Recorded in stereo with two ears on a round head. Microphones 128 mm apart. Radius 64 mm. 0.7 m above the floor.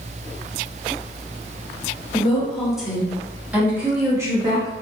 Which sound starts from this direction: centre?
A woman speaking, at 2.1 s.